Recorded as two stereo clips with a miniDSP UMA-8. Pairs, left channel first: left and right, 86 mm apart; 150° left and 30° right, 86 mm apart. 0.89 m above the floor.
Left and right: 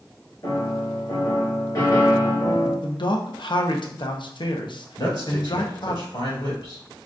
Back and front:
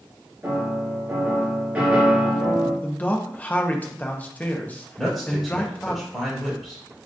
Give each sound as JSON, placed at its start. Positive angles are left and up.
{"t": 0.4, "sound": "a piano", "azimuth_deg": 45, "distance_m": 3.0}
{"t": 2.8, "sound": "a man speaking", "azimuth_deg": 80, "distance_m": 0.7}
{"t": 5.0, "sound": "a man speaking", "azimuth_deg": 60, "distance_m": 2.5}